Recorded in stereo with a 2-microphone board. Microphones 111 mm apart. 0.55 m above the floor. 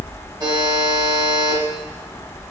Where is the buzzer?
35° right (ahead or behind), 1.0 m.